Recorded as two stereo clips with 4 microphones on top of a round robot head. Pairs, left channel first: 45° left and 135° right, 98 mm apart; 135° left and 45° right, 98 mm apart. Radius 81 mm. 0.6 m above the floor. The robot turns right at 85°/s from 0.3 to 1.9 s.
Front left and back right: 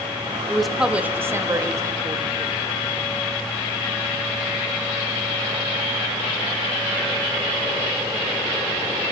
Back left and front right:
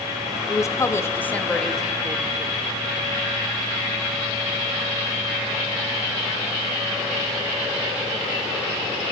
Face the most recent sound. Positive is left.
turn(degrees=-120)